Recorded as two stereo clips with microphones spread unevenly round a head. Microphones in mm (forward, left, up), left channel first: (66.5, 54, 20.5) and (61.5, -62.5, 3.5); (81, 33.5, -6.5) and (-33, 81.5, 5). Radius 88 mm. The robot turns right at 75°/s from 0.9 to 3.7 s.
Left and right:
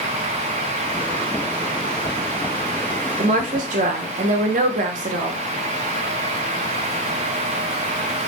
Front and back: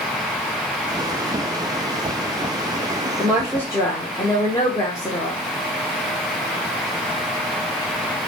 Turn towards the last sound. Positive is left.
turn(degrees=-95)